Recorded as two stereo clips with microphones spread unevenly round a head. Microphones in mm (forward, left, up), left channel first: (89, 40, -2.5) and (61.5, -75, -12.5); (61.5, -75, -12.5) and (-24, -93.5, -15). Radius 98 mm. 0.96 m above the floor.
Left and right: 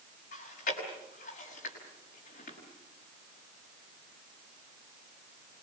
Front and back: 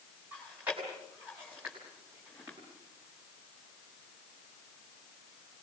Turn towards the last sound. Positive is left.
turn(degrees=110)